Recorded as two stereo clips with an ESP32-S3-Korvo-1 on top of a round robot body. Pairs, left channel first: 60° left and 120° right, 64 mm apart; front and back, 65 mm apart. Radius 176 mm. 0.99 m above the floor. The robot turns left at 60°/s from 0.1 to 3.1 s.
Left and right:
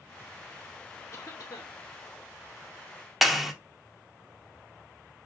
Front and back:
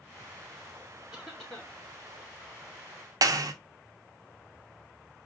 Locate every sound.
1.1 s a cough: 95° left, 3 m; by 1.8 s 60° left, 3 m
3.2 s a clap: 150° left, 0.7 m